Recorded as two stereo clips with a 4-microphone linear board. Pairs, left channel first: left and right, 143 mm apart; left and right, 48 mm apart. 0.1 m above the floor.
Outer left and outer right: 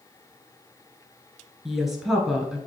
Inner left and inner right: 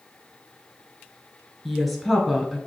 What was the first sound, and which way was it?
A woman speaking, centre (ahead or behind).